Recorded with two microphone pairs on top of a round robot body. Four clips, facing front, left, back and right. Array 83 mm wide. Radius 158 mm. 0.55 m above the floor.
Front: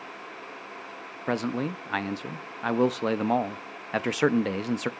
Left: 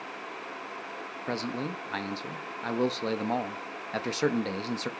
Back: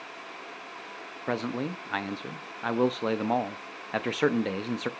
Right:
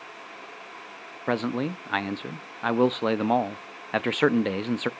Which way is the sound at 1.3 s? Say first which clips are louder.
Right 7 dB, front 2 dB; 75° right.